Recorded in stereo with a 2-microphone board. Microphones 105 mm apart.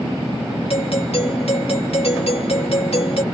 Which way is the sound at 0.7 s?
70° left (ahead or behind).